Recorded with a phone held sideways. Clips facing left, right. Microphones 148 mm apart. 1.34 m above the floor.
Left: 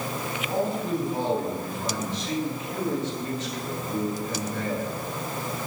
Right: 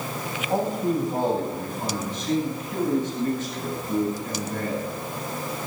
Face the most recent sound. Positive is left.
turn(degrees=-55)  # may be behind; listen again after turning